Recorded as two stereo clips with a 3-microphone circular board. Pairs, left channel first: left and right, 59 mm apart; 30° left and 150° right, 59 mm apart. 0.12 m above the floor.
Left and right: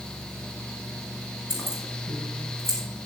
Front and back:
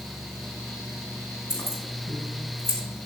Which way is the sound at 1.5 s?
50° left.